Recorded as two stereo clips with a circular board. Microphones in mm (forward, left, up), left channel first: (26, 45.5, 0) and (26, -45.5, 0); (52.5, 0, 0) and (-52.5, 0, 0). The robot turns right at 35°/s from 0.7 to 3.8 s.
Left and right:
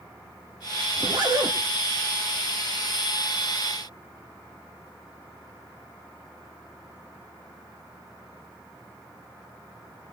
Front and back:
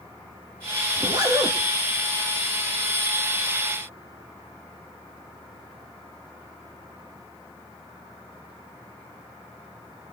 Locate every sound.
0.9 s a zipper: 135° right, 4.5 m; by 1.6 s 115° right, 4.5 m